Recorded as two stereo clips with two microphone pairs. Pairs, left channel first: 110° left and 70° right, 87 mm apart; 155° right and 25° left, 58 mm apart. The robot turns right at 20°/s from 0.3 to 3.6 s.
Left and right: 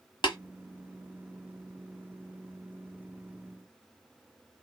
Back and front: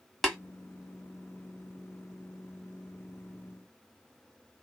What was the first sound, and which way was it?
Tapping, 120° left.